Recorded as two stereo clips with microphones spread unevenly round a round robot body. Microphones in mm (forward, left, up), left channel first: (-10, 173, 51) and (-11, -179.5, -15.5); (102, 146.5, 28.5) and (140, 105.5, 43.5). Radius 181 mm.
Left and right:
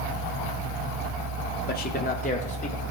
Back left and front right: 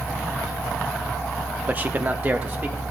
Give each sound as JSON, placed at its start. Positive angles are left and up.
{"t": 1.7, "sound": "a man speaking", "azimuth_deg": 25, "distance_m": 1.1}